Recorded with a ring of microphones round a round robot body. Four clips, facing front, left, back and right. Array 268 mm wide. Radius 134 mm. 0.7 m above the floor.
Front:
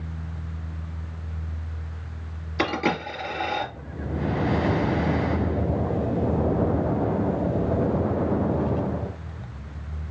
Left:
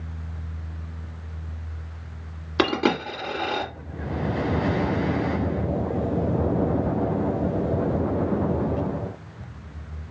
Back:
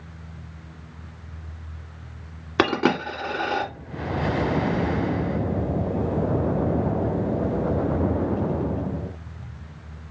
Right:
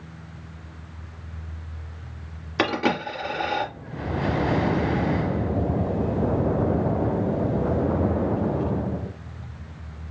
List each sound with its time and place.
2.6 s a dropped coin: 165° left, 1.6 m